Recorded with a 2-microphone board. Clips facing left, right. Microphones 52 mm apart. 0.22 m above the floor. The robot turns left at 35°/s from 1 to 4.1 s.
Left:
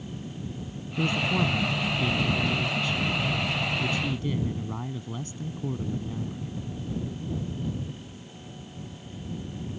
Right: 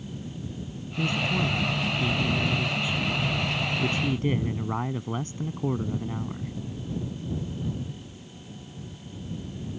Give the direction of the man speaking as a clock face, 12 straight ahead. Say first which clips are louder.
Left 1 dB; 11 o'clock.